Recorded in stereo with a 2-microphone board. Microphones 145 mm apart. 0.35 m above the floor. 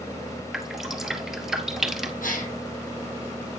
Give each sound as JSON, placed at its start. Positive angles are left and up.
{"t": 0.5, "sound": "dripping", "side_deg": 0, "distance_m": 1.5}
{"t": 2.2, "sound": "a gasp", "side_deg": 90, "distance_m": 3.5}